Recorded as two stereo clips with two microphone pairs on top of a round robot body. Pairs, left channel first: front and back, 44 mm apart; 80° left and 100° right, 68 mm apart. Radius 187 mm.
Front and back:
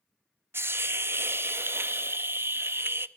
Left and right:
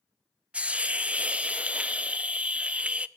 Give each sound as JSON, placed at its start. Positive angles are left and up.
{"t": 0.5, "sound": "a hiss", "azimuth_deg": -170, "distance_m": 0.8}